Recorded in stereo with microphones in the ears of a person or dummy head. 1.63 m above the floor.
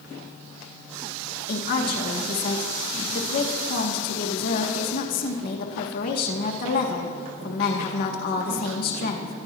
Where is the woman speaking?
60° left (ahead or behind), 2.5 m.